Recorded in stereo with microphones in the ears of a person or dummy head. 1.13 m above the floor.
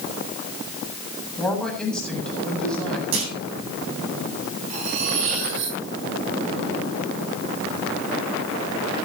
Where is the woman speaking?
5° left (ahead or behind), 8 m.